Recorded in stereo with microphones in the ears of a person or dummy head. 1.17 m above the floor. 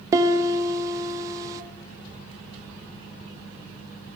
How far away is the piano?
About 1.2 m.